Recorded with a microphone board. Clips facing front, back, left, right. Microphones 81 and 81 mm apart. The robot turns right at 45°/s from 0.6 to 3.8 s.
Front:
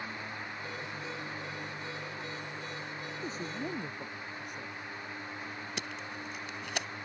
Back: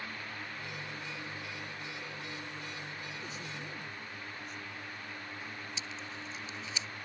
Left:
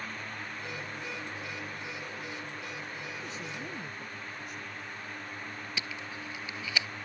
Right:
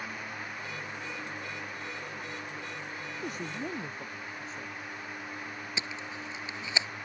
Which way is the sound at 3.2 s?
55° right.